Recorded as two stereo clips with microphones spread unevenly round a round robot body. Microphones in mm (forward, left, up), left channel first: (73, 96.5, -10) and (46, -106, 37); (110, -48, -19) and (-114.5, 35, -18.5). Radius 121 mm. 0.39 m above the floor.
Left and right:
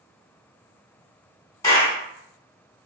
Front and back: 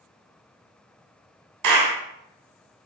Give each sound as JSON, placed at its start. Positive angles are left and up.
{"t": 1.6, "sound": "a clap", "azimuth_deg": 155, "distance_m": 3.0}